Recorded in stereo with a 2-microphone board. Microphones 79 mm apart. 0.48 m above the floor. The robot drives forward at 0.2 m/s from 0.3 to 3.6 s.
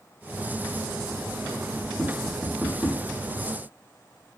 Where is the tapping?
10° left (ahead or behind), 0.8 m; by 3.0 s 5° left (ahead or behind), 1.0 m.